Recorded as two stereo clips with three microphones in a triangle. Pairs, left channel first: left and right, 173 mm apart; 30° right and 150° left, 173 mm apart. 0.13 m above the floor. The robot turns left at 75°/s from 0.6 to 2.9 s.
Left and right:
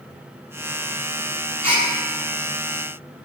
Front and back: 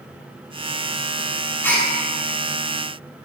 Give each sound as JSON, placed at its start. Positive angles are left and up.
{"t": 1.6, "sound": "a gasp", "azimuth_deg": -95, "distance_m": 1.6}